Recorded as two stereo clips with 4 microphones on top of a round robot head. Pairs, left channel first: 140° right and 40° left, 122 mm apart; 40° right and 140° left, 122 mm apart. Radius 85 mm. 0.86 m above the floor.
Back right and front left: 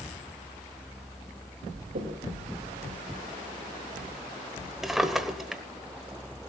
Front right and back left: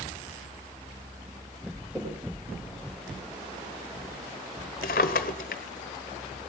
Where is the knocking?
55° left, 3.5 m.